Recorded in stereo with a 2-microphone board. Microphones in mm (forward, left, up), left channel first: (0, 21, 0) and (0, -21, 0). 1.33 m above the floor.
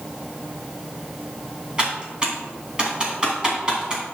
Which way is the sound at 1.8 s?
20° right (ahead or behind).